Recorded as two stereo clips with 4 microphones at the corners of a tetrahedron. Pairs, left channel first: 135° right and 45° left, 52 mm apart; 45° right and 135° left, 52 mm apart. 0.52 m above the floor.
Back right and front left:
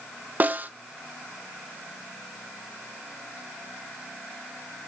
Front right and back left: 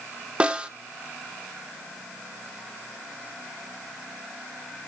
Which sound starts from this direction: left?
A snare drum, at 0.4 s.